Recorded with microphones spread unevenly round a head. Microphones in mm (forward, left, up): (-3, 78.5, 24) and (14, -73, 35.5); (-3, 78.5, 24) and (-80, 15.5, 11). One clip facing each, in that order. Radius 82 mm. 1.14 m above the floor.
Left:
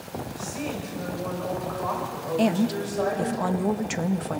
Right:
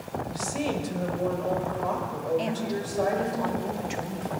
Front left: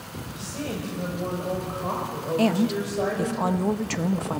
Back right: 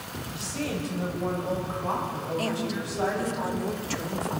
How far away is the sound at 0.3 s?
About 6 m.